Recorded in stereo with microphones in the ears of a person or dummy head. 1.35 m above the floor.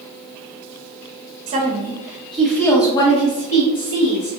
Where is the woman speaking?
30° right (ahead or behind), 1.0 m; by 4.3 s 55° left (ahead or behind), 1.6 m.